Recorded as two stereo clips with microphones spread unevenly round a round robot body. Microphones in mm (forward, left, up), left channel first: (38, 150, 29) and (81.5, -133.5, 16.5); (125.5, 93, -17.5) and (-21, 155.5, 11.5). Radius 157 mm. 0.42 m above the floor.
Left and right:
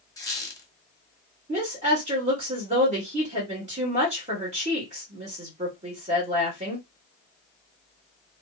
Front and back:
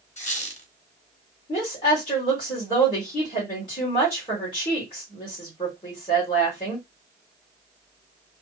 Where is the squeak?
20° left, 1.1 m.